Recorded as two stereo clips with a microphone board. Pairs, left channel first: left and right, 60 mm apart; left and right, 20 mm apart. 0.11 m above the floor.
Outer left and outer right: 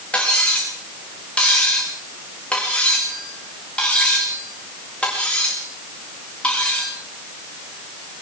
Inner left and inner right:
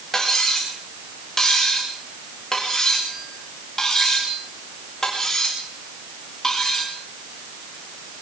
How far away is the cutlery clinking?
About 6 m.